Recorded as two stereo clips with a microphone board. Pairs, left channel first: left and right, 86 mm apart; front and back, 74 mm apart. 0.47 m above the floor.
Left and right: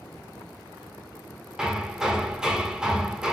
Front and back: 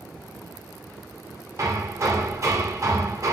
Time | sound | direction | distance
1.6 | hammering | 170° right | 0.8 m